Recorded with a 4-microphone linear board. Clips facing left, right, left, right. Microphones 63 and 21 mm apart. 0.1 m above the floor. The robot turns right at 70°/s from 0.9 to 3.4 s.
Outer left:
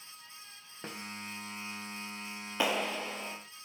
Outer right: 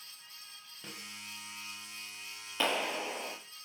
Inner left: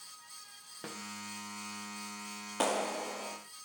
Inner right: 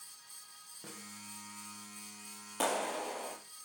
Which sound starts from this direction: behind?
A clap, at 2.6 s.